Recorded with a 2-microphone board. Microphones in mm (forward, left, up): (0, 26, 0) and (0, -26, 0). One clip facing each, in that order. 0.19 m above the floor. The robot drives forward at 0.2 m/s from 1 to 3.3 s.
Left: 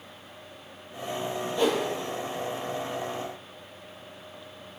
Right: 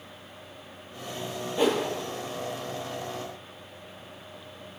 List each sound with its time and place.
1.6 s a whoosh: 15° right (ahead or behind), 0.9 m